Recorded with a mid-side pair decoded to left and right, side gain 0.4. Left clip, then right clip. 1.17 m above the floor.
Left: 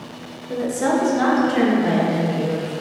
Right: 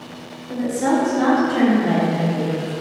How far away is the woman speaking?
About 0.7 m.